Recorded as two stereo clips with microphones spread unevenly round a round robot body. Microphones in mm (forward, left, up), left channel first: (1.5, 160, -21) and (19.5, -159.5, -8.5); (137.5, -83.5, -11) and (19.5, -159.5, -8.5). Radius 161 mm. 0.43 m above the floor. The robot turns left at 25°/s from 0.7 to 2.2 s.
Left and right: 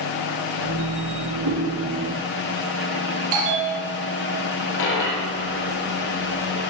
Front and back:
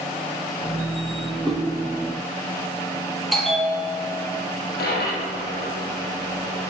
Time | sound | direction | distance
1.4 | a whoosh | 45° right | 8 m
3.3 | a bell | 55° right | 5.5 m
4.8 | a dropped coin | 55° left | 5.5 m